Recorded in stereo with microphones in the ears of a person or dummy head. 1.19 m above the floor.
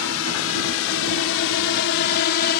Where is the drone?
75° left (ahead or behind); by 2.6 s 50° left (ahead or behind).